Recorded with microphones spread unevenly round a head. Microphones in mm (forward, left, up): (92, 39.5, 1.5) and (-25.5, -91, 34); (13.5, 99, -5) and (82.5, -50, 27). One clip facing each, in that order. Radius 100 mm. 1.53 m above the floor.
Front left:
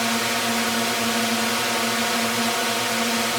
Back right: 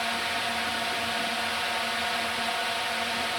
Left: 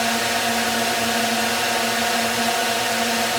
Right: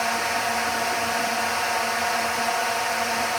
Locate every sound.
0.0 s a drone: 70° left